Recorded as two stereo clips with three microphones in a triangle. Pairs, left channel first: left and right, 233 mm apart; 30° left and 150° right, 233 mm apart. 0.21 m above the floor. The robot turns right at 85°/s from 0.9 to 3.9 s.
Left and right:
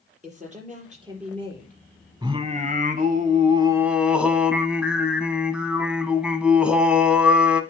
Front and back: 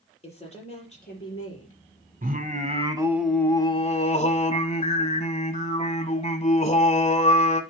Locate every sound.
0.2 s a woman speaking: 35° right, 4.5 m; by 1.8 s 40° left, 4.5 m
2.2 s singing: 150° right, 0.9 m; by 7.6 s 10° right, 0.9 m